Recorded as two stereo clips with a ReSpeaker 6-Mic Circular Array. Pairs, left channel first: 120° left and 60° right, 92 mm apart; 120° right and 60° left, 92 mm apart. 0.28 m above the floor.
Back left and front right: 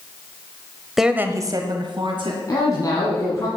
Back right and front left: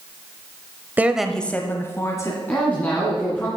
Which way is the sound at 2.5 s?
170° left.